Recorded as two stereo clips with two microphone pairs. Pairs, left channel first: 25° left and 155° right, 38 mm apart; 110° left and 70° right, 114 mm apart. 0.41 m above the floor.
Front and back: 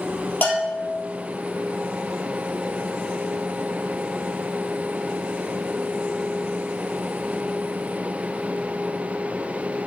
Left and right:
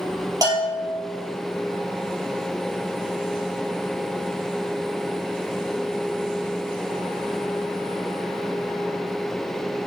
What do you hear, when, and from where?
0.4 s a bell: 10° right, 2.5 m